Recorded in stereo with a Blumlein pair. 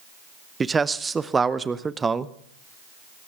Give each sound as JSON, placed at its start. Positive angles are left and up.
{"t": 0.6, "sound": "a man speaking", "azimuth_deg": -15, "distance_m": 0.8}